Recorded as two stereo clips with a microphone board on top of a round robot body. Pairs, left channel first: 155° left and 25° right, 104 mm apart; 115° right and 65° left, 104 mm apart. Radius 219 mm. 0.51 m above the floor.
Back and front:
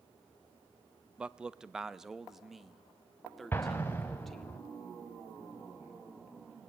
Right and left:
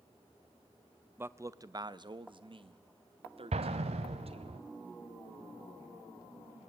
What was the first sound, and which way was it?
A man speaking, 40° left.